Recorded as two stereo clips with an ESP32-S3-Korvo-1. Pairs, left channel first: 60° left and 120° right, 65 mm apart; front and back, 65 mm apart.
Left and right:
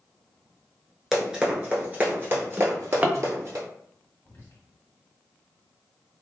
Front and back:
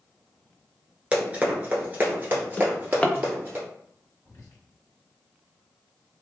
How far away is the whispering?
About 1.6 m.